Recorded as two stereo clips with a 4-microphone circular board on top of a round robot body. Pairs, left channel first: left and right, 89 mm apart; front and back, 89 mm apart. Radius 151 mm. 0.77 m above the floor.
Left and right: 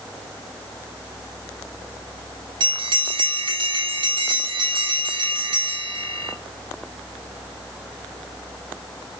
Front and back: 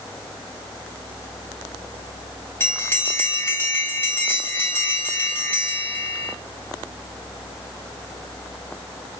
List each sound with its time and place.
2.6 s a bell: 65° right, 5 m